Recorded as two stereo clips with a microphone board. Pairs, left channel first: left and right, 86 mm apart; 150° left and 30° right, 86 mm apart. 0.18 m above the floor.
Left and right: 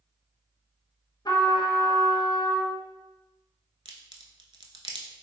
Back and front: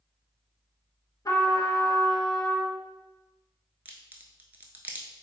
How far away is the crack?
About 0.5 m.